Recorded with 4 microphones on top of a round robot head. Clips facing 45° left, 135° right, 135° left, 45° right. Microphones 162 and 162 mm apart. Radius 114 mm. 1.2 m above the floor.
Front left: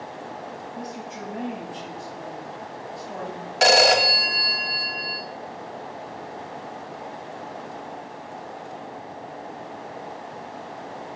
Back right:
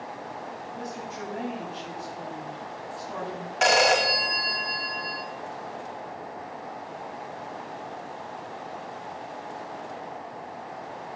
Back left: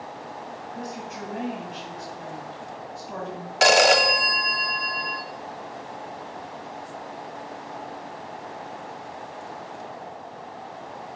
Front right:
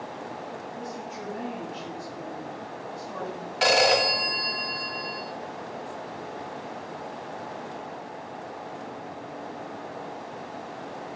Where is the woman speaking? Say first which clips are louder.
Even, back left 1 dB; 115° left, 9.5 m.